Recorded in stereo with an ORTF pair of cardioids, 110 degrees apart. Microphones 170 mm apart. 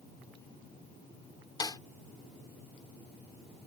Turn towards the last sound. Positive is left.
turn(degrees=25)